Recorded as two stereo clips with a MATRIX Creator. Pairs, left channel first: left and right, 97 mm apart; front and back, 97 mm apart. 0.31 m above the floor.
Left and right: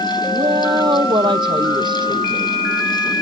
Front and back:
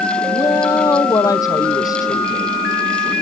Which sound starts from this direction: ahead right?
A woman speaking, at 0.3 s.